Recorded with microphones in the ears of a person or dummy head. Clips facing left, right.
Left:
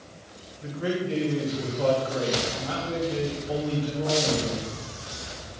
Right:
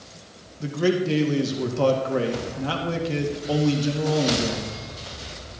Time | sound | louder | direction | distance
0.6 | a man speaking | right 6 dB | 75° right (ahead or behind) | 1.9 m